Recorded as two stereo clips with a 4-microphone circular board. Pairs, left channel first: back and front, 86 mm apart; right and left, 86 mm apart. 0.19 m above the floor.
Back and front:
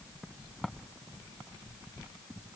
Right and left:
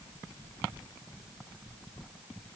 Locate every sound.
Only background noise.